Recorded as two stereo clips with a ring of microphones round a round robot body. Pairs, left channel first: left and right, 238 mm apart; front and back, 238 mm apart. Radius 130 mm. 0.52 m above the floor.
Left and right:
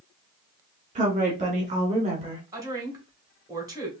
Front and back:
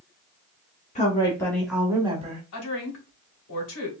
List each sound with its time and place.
0.9 s a woman speaking: 45° right, 1.4 m; by 2.4 s 145° right, 1.3 m
2.5 s a woman speaking: 15° right, 2 m